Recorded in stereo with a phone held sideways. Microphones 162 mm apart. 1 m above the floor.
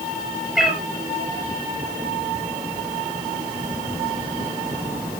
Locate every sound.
0.6 s a cat meowing: 5° right (ahead or behind), 2.5 m